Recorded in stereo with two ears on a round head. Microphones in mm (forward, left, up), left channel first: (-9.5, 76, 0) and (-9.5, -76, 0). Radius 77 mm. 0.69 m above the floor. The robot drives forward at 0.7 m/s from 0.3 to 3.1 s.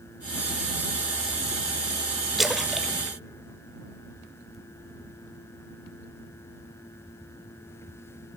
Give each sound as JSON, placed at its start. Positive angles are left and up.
{"t": 2.4, "sound": "a splash", "side_deg": 0, "distance_m": 0.7}